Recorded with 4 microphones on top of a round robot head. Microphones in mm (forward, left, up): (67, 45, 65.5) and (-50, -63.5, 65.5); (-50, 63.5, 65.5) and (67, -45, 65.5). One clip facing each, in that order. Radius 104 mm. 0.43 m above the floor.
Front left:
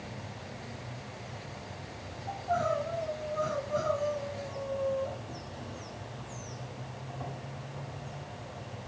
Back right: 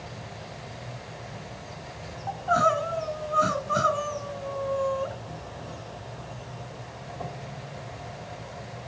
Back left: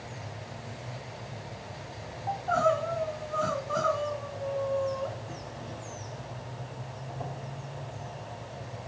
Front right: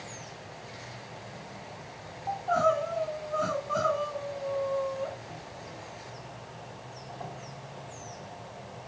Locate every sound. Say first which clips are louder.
0.0 s an insect: back right 3 dB, back left 2 dB; 170° right, 4 m
2.3 s crying: back right 5 dB, even; 130° right, 1.4 m